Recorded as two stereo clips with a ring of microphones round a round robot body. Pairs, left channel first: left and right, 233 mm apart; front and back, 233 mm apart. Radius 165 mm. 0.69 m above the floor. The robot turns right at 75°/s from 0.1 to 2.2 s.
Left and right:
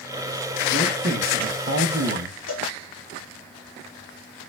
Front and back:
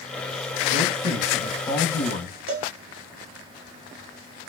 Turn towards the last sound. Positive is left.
turn(degrees=155)